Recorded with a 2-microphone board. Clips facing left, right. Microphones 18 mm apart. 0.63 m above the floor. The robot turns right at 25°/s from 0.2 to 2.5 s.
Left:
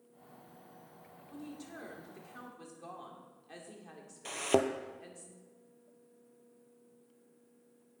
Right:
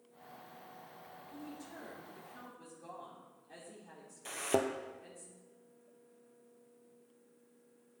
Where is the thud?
20° left (ahead or behind), 0.6 m.